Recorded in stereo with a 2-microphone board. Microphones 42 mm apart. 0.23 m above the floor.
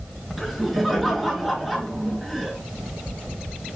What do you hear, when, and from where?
0.4 s laughter: centre (ahead or behind), 3 m